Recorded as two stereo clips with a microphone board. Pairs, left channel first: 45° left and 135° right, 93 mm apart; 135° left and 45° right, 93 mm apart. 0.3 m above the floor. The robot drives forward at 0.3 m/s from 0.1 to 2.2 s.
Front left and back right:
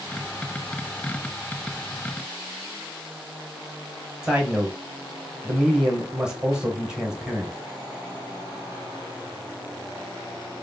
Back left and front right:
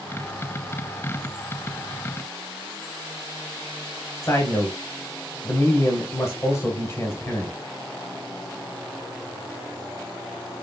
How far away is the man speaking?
About 0.9 m.